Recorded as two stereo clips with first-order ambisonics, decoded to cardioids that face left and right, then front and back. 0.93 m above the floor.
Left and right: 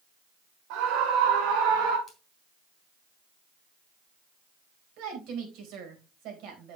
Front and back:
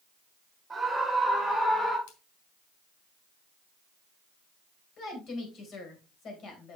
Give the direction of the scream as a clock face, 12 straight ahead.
3 o'clock.